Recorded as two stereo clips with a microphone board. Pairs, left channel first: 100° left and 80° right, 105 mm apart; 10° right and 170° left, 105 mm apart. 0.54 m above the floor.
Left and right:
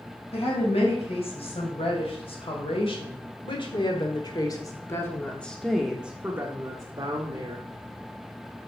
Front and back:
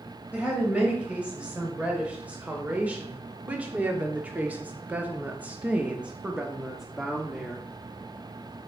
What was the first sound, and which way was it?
A woman speaking, 90° left.